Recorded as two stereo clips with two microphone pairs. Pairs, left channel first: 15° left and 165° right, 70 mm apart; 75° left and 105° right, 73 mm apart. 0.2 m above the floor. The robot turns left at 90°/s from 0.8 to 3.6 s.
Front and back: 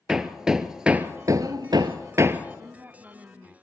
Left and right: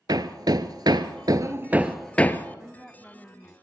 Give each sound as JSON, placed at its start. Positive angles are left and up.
{"t": 0.1, "sound": "hammering", "azimuth_deg": -85, "distance_m": 1.1}
{"t": 2.6, "sound": "a woman speaking", "azimuth_deg": -160, "distance_m": 1.2}